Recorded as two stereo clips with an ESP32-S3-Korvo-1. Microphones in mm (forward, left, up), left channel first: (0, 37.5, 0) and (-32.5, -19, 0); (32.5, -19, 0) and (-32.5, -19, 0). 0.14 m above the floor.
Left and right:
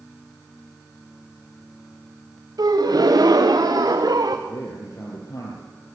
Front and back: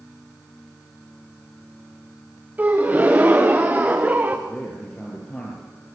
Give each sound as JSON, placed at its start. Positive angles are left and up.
{"t": 2.6, "sound": "a gasp", "azimuth_deg": -115, "distance_m": 2.5}
{"t": 4.5, "sound": "a man speaking", "azimuth_deg": 75, "distance_m": 3.5}